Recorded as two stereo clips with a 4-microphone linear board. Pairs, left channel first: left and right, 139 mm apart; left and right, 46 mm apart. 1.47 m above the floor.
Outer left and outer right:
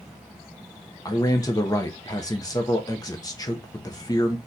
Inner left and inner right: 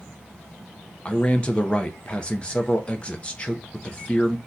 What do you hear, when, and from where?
1.1 s a man speaking: 25° left (ahead or behind), 0.6 m